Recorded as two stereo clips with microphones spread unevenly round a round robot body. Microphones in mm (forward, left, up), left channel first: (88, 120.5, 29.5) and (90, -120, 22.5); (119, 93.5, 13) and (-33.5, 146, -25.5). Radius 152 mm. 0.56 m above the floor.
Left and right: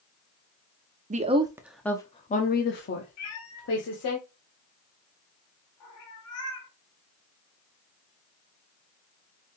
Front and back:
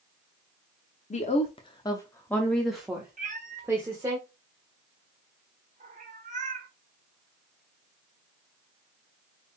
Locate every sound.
1.1 s a woman speaking: 65° right, 0.8 m; by 4.2 s 95° left, 1.5 m
3.2 s a cat meowing: 125° left, 1.5 m